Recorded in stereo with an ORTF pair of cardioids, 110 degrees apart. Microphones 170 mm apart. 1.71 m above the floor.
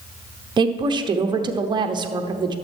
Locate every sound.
0.6 s a woman speaking: 25° right, 0.8 m